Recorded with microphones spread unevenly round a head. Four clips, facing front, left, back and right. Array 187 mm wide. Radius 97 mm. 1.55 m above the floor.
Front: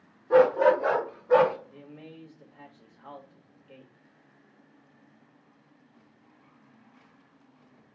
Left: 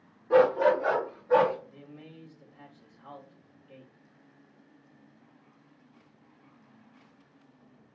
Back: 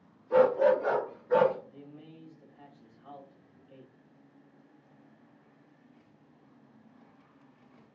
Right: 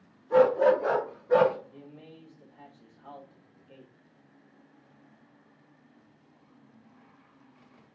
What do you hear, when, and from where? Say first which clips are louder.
0.3 s a dog barking: right 1 dB, front 3 dB; 25° left, 1.5 m; by 1.6 s 10° right, 2.5 m
1.7 s a man speaking: even, front 3 dB; 5° right, 2.0 m